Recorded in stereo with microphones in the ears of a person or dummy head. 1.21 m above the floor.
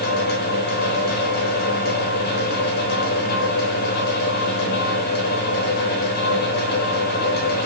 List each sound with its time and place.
0.0 s a fan: 60° left (ahead or behind), 0.9 m